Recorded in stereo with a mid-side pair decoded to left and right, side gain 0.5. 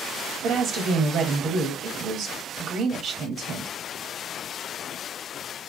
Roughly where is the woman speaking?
Ahead right.